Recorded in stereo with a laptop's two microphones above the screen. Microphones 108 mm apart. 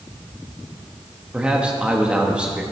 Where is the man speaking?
10° right (ahead or behind), 1.0 m.